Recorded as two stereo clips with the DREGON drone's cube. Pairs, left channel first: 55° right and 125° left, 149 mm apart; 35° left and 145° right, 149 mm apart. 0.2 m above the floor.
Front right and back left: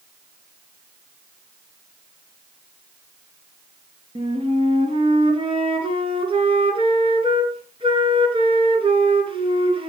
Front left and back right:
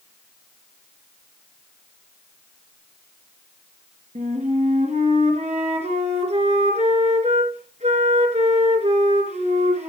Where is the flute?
175° left, 3 m.